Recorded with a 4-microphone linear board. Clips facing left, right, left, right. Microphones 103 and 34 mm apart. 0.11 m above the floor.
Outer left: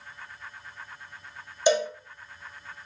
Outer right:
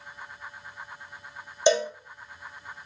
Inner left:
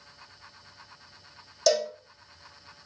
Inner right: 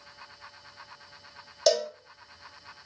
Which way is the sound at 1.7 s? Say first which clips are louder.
Outer right 1 dB, even; 25° right (ahead or behind).